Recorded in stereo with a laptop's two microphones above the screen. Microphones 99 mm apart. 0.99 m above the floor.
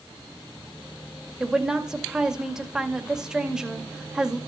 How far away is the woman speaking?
About 1.8 m.